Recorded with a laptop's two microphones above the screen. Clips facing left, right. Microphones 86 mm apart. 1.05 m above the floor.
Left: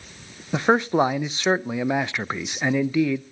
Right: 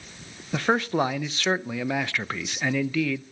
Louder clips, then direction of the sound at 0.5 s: Left 4 dB; 20° left (ahead or behind).